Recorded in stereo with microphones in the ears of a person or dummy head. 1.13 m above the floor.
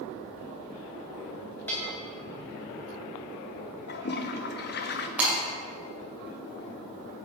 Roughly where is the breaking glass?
Centre.